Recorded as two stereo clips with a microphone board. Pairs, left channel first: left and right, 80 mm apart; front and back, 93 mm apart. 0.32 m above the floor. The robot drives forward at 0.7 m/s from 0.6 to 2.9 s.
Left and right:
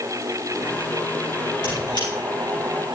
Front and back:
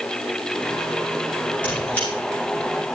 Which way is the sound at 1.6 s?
75° left.